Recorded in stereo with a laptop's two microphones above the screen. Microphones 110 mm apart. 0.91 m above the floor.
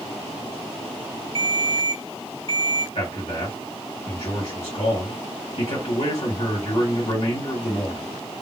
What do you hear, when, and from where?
1.4 s a ringtone: 65° right (ahead or behind), 1.4 m
3.0 s a man speaking: 70° left (ahead or behind), 1.7 m